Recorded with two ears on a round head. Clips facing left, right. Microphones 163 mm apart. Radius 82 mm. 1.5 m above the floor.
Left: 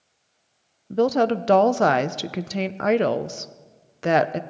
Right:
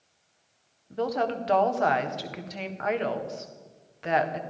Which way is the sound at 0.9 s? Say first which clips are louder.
Left 8 dB; 50° left (ahead or behind).